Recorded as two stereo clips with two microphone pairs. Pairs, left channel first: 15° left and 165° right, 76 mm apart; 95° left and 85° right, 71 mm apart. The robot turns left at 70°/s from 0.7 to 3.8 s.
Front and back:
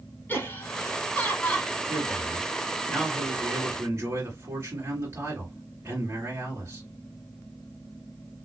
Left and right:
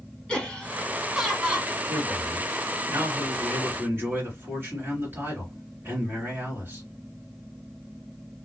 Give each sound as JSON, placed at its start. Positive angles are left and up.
{"t": 0.3, "sound": "laughter", "azimuth_deg": 30, "distance_m": 1.1}
{"t": 1.9, "sound": "a man speaking", "azimuth_deg": 5, "distance_m": 2.5}